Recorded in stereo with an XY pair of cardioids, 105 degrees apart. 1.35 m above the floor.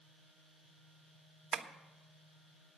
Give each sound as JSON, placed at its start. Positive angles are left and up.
{"t": 1.5, "sound": "tapping", "azimuth_deg": -50, "distance_m": 1.1}